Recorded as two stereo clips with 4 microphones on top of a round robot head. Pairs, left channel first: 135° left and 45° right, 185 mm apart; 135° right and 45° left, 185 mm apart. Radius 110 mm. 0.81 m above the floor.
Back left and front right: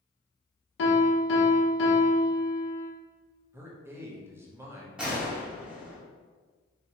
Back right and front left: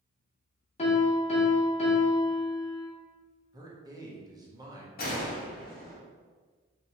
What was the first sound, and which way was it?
A piano, 165° left.